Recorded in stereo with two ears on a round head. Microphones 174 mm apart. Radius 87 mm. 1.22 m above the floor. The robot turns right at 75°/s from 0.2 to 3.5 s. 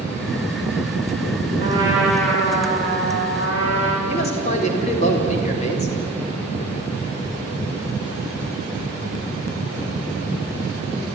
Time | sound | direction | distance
1.6 | a trumpet | 35° right | 5.5 m
4.1 | a man speaking | 35° left (ahead or behind) | 4.5 m